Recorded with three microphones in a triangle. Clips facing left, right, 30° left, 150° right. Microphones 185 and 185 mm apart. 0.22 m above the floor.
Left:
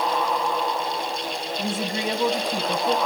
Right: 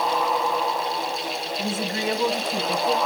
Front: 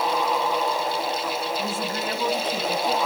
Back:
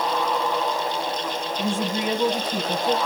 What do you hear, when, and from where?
1.6 s a woman speaking: 150° left, 1.1 m